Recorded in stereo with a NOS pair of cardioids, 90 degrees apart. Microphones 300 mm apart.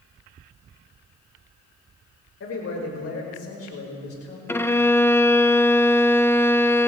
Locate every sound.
2.4 s a man speaking: 55° left, 5.5 m
4.5 s a violin: 10° left, 0.8 m